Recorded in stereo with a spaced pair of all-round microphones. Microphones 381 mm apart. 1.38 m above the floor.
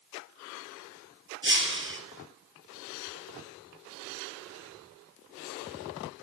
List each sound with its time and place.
1.4 s breaking glass: 35° right (ahead or behind), 2 m